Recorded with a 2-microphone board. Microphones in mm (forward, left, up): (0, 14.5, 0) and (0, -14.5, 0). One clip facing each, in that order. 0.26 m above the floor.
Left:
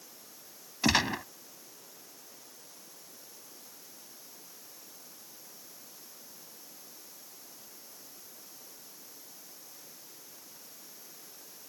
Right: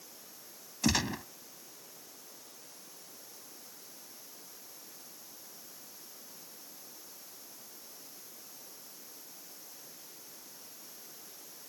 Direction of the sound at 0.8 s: 30° left (ahead or behind).